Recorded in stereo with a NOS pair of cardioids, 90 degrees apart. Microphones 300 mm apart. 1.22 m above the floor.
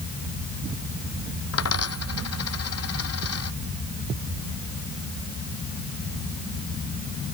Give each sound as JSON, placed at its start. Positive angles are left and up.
{"t": 1.5, "sound": "a dropped coin", "azimuth_deg": 55}